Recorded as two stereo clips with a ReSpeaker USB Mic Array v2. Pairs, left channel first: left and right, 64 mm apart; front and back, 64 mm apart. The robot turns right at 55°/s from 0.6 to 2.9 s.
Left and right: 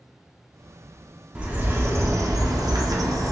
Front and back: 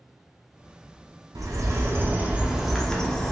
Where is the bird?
165° right, 0.5 m; by 3.3 s 80° right, 0.5 m.